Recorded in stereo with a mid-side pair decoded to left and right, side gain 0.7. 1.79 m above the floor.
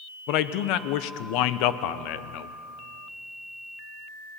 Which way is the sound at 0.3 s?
70° left.